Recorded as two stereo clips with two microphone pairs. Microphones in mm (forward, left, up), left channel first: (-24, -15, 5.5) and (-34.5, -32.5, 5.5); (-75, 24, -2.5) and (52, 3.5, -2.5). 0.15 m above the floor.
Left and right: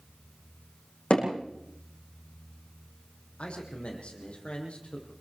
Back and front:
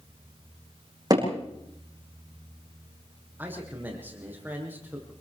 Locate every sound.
1.1 s hammering: 50° left, 8 m
3.4 s a man speaking: 65° left, 7.5 m